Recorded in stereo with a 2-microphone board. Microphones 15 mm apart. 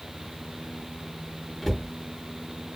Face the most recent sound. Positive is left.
turn(degrees=20)  # may be behind; listen again after turning